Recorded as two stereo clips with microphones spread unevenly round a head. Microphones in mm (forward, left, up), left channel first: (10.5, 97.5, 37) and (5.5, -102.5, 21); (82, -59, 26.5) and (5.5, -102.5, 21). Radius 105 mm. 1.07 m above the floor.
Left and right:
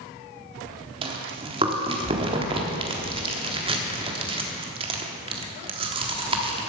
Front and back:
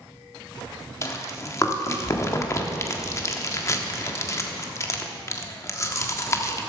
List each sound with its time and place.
1.0 s chewing: 25° right, 1.3 m